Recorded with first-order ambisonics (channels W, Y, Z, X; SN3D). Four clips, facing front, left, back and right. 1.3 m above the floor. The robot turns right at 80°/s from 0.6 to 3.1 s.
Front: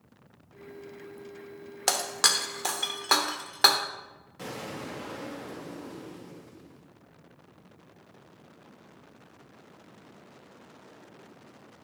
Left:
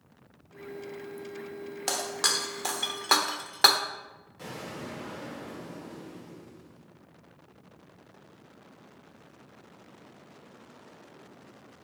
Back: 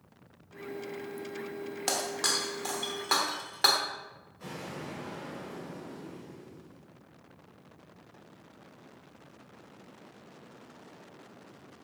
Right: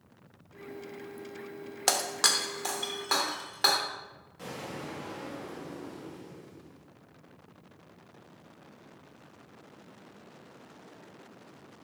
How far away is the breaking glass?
About 1.0 m.